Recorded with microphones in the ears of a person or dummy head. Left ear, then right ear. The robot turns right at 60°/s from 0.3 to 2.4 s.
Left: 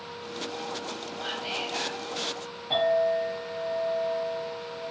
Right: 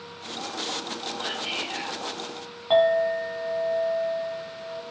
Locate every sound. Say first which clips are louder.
1.2 s whispering: right 1 dB; 160° right, 0.9 m; by 2.0 s 110° right, 0.9 m
2.7 s a clink: right 4 dB; 50° right (ahead or behind), 0.9 m